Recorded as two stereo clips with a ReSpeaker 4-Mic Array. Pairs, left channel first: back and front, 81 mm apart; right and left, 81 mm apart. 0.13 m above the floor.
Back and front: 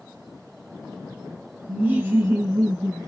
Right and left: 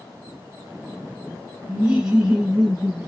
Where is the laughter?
35° left, 1.5 m; by 3.1 s 20° left, 1.9 m.